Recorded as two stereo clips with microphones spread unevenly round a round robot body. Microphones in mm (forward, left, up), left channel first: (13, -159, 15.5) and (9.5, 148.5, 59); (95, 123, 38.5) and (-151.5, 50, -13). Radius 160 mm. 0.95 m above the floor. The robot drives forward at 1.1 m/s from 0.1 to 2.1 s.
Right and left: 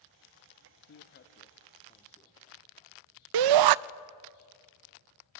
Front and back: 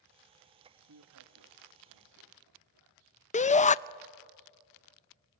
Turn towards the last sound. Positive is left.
turn(degrees=85)